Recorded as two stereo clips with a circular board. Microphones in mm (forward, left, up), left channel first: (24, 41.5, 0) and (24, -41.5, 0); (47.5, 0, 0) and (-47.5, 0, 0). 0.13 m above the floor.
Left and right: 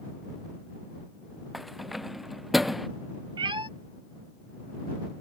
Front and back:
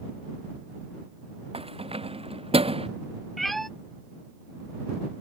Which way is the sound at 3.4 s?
90° right.